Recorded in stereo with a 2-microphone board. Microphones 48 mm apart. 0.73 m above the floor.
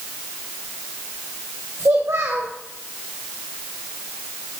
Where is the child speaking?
75° right (ahead or behind), 3 m.